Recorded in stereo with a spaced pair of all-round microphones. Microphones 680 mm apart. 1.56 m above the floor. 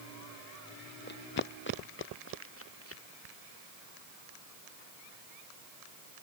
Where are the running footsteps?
15° left (ahead or behind); by 3.0 s 20° left (ahead or behind).